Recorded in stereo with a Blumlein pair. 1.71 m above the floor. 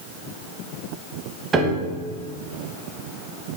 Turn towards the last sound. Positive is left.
turn(degrees=-20)